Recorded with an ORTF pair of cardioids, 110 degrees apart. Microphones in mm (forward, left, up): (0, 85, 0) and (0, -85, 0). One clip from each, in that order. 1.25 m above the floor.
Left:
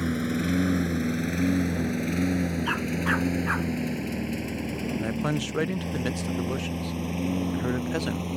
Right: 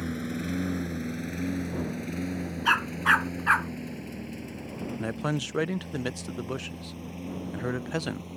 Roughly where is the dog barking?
Ahead right.